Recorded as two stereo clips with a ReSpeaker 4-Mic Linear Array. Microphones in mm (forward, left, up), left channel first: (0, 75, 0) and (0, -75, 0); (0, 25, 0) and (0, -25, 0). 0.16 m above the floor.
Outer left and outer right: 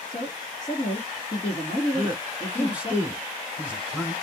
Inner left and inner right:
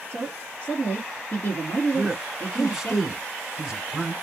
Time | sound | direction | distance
0.1 | a woman speaking | 45° left (ahead or behind) | 1.7 m
1.9 | a man speaking | 10° right (ahead or behind) | 1.1 m